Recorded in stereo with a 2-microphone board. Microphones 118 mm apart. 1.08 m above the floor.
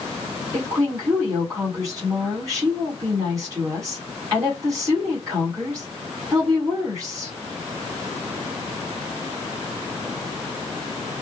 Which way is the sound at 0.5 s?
30° right (ahead or behind).